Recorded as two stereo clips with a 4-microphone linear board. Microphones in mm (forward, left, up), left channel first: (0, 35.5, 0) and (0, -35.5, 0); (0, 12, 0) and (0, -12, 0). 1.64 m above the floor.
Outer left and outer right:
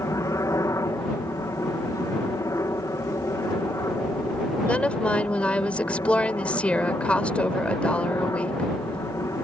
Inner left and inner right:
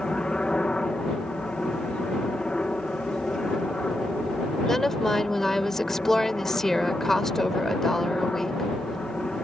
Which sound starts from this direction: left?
A helicopter, at 0.0 s.